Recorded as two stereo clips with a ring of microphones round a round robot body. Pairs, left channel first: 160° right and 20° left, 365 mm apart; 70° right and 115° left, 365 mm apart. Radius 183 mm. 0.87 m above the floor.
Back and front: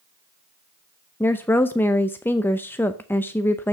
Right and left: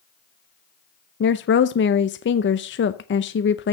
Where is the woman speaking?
80° right, 0.6 m.